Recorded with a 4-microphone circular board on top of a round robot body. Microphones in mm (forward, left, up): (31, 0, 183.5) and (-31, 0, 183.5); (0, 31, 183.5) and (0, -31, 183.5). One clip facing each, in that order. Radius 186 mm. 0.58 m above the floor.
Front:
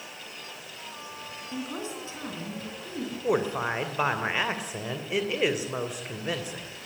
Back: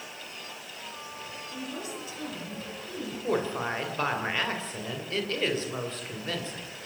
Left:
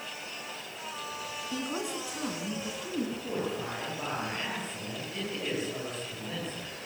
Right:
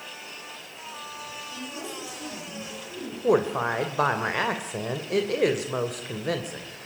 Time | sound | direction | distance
1.5 | a woman speaking | 60° left | 8.5 m
3.2 | a woman speaking | 75° right | 2.5 m